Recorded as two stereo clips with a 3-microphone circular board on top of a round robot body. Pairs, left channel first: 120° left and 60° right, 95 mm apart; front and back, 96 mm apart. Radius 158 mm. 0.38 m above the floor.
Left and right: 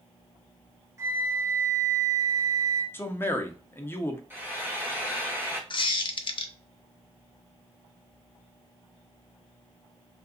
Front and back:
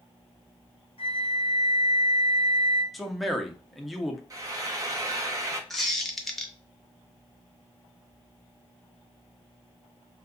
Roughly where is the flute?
Ahead.